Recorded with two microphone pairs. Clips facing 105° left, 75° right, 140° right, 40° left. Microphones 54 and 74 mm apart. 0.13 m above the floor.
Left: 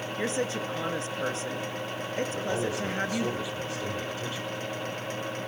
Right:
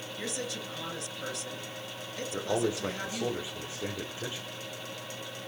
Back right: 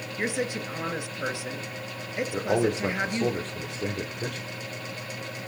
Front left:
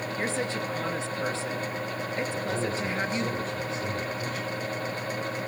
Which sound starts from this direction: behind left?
A woman speaking, at 0.2 s.